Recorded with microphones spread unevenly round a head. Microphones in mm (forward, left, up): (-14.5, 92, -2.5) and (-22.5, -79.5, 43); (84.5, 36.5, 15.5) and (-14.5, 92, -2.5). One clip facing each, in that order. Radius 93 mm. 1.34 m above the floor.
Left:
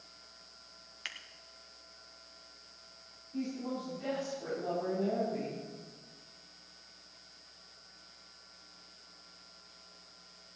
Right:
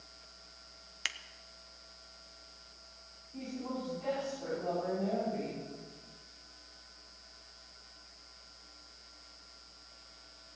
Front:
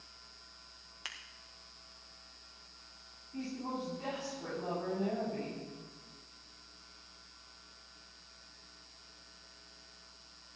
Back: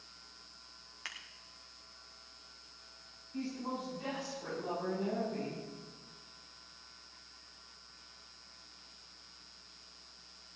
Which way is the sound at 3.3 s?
15° left.